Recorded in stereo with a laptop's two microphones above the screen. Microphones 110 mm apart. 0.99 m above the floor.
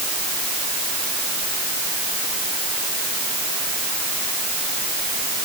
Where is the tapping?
I don't hear tapping.